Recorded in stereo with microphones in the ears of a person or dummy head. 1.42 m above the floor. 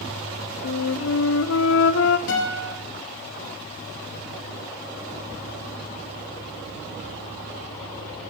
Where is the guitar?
75° left (ahead or behind), 7 m.